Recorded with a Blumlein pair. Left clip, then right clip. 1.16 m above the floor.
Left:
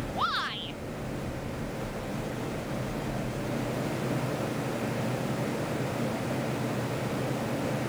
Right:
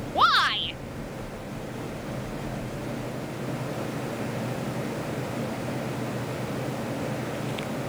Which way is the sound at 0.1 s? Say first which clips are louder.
Right 10 dB; 25° right.